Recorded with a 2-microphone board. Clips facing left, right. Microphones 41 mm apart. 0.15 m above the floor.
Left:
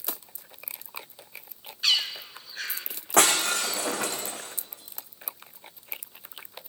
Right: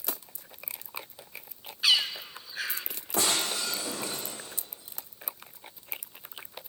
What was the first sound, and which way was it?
A bird, 10° right (ahead or behind).